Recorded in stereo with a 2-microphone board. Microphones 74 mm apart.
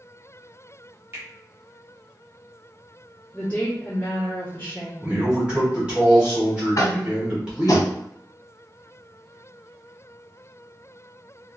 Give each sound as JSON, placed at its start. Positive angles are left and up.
{"t": 1.1, "sound": "a finger snap", "side_deg": -30, "distance_m": 1.3}
{"t": 3.3, "sound": "a woman speaking", "side_deg": 20, "distance_m": 1.1}
{"t": 5.0, "sound": "a man speaking", "side_deg": -15, "distance_m": 1.2}
{"t": 6.8, "sound": "tapping", "side_deg": 50, "distance_m": 0.6}